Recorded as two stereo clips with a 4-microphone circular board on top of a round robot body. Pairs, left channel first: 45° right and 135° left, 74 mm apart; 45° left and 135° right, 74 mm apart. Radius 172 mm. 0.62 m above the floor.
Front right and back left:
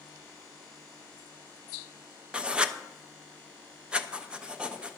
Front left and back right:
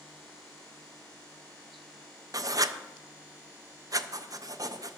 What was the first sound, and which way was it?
Writing, 150° right.